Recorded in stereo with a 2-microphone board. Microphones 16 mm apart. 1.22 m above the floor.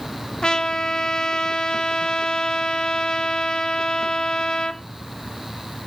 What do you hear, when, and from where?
0.4 s a trumpet: 70° left (ahead or behind), 1.2 m